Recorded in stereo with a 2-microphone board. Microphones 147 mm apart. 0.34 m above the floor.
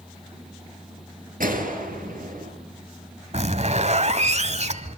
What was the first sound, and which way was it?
A gunshot, 70° right (ahead or behind).